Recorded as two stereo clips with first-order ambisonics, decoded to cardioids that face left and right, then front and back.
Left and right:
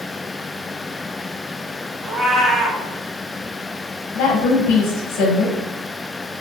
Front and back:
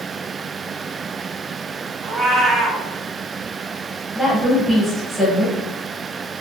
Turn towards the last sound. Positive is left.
turn(degrees=80)